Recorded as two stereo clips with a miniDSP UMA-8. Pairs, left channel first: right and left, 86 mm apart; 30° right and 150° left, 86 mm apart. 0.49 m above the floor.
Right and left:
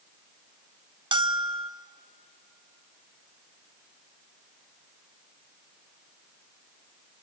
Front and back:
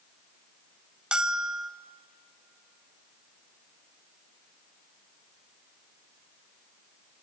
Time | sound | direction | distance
1.1 | a bell | 70° left | 0.9 m